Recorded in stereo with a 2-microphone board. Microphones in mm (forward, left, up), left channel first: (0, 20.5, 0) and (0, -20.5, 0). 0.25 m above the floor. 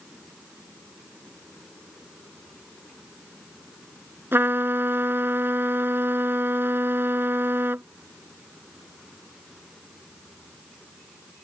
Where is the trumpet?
70° right (ahead or behind).